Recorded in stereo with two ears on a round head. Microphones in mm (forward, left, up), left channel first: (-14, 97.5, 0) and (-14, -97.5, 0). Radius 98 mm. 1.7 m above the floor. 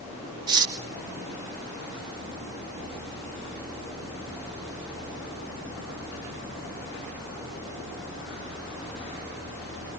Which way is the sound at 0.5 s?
20° right (ahead or behind).